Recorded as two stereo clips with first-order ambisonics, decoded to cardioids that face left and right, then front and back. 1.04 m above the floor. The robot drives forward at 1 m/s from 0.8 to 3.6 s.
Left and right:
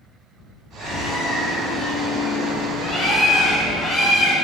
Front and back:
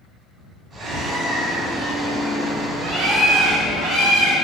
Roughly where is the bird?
Behind left.